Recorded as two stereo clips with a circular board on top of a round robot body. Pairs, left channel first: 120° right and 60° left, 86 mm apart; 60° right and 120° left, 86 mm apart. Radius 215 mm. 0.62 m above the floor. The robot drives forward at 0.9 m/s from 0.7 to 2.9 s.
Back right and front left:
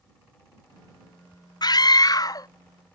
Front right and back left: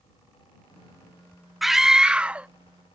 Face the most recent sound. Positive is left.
turn(degrees=-165)